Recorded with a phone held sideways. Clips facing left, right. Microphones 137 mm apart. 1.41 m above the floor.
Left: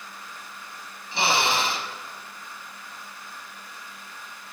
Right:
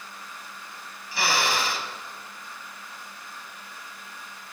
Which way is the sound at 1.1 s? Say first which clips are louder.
Left 2 dB; 25° left (ahead or behind).